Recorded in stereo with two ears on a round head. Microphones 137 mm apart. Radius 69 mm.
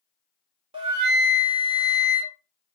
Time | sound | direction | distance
0.7 | a flute | 40° right (ahead or behind) | 0.7 m